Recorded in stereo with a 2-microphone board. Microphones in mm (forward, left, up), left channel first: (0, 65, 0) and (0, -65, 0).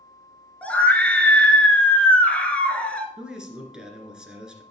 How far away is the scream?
About 1.8 m.